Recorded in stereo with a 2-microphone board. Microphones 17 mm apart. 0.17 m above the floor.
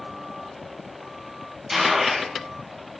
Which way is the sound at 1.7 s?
30° right (ahead or behind).